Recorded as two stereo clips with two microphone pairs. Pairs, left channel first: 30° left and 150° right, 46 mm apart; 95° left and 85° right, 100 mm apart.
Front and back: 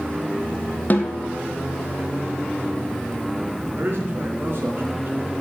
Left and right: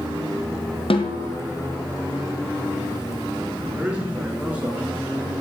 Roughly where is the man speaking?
Behind right.